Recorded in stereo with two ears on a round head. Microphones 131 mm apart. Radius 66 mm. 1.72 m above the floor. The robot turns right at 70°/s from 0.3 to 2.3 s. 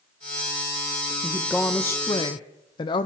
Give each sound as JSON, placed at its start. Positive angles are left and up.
{"t": 1.2, "sound": "a woman speaking", "azimuth_deg": -15, "distance_m": 0.5}